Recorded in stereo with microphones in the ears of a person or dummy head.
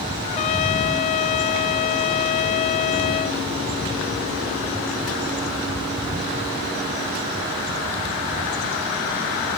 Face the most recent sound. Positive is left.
turn(degrees=40)  # may be behind; listen again after turning